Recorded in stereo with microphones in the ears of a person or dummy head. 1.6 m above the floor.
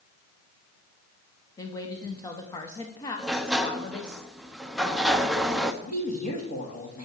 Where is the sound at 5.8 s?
50° left (ahead or behind), 2.5 m.